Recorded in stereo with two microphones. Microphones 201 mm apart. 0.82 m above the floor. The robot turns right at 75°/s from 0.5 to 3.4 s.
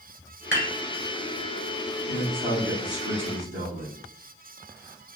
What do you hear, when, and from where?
0.5 s dishes clattering: 75° left (ahead or behind), 1.5 m; by 0.7 s 60° left (ahead or behind), 1.5 m
2.1 s a man speaking: 175° right, 1.6 m; by 4.0 s 75° right, 1.6 m